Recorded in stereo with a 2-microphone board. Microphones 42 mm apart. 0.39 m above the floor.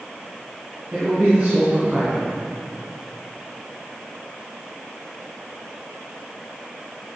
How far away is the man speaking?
About 4 m.